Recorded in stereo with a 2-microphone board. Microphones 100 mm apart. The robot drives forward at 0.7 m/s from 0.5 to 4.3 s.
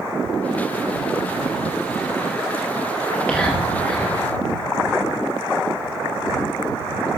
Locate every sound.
3.0 s whispering: 15° left (ahead or behind), 1.5 m; by 4.1 s 10° left (ahead or behind), 2 m